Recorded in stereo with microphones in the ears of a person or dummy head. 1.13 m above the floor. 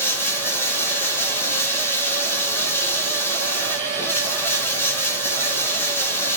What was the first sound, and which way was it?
Running water, 15° left (ahead or behind).